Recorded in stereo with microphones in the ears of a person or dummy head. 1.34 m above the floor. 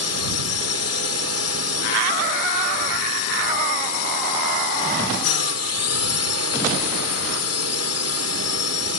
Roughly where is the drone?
Left.